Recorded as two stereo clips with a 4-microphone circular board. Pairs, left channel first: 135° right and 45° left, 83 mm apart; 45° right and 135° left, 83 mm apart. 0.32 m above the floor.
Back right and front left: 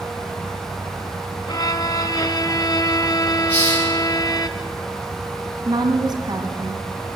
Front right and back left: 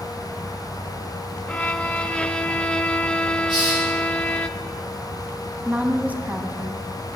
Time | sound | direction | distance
1.5 | a violin | 120° right | 0.6 m
3.5 | a hiss | 155° left | 8.5 m
5.7 | a woman speaking | 65° left | 1.9 m